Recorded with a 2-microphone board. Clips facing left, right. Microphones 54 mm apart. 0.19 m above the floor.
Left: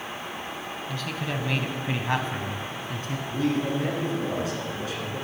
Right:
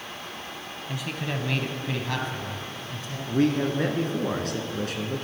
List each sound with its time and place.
0.9 s a man speaking: 15° right (ahead or behind), 1.0 m; by 3.2 s 50° left (ahead or behind), 1.4 m
3.3 s a man speaking: 60° right (ahead or behind), 1.9 m